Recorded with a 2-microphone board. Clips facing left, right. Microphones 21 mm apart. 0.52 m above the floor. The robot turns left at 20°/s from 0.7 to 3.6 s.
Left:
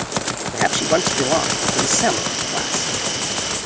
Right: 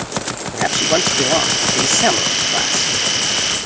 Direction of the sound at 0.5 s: 5° left.